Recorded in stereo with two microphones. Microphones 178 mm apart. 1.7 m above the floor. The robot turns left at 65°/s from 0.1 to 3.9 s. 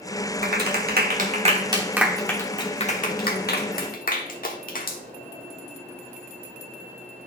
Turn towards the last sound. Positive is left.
turn(degrees=50)  # may be behind; listen again after turning